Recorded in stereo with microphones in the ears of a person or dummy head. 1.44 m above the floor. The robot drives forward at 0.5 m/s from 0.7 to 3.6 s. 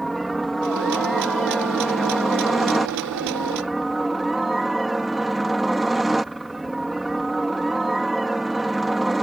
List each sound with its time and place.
0.0 s a helicopter: 5° left (ahead or behind)